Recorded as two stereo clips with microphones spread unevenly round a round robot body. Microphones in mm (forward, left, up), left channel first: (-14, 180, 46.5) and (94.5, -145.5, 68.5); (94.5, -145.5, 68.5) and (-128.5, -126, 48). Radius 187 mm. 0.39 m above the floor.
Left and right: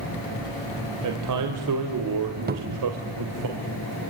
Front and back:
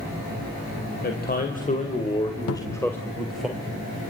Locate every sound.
1.0 s a man speaking: 45° right, 2.5 m; by 3.5 s 100° right, 2.5 m
2.5 s a cupboard door: 5° right, 0.9 m